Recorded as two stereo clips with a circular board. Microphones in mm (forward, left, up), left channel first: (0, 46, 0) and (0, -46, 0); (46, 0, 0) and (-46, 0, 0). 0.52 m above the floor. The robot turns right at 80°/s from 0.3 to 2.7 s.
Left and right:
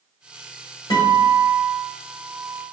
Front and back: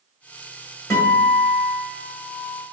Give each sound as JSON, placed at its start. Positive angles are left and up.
{"t": 0.9, "sound": "a guitar", "azimuth_deg": 50, "distance_m": 2.0}